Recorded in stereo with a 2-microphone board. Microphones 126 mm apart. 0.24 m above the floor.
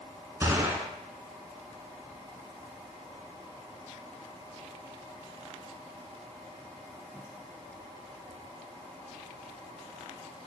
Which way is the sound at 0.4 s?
25° right (ahead or behind).